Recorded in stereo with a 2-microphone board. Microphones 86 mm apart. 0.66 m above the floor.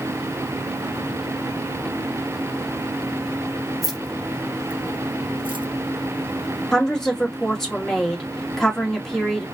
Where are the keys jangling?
5° left (ahead or behind), 1.7 m; by 5.7 s 70° right (ahead or behind), 0.8 m.